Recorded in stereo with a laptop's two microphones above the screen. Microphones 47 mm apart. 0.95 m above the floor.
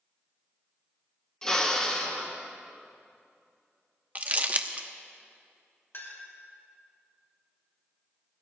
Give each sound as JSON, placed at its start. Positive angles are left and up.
{"t": 1.4, "sound": "a drill", "side_deg": 15, "distance_m": 1.3}
{"t": 4.2, "sound": "crumpling", "side_deg": -35, "distance_m": 0.7}
{"t": 5.9, "sound": "a clink", "side_deg": 60, "distance_m": 3.5}